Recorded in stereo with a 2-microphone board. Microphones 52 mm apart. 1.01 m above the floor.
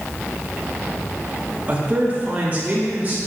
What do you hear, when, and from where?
1.7 s a man speaking: 30° right (ahead or behind), 1.2 m